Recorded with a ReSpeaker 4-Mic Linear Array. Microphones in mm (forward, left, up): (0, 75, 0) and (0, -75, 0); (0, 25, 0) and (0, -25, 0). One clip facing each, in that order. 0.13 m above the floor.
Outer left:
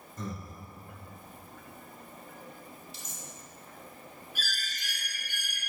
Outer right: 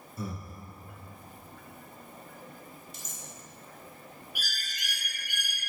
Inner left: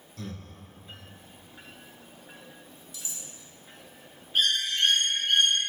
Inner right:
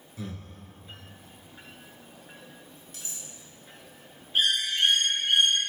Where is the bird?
15° right (ahead or behind), 1.4 m.